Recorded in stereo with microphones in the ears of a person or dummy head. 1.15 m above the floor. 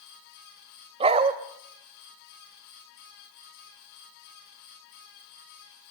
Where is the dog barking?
30° right (ahead or behind), 2 m.